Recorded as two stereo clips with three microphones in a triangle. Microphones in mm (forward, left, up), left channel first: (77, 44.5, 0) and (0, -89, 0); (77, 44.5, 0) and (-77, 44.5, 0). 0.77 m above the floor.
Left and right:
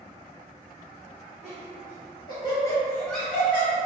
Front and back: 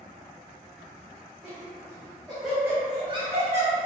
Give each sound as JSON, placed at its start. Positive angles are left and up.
{"t": 1.4, "sound": "laughter", "azimuth_deg": 50, "distance_m": 1.3}